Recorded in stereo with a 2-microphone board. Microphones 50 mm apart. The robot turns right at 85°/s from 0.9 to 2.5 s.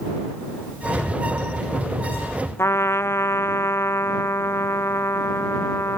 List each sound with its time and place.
2.6 s a trumpet: 60° left (ahead or behind)